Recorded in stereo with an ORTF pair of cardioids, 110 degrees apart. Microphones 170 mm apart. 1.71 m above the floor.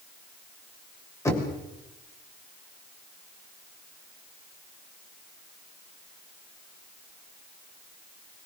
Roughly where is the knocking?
Ahead.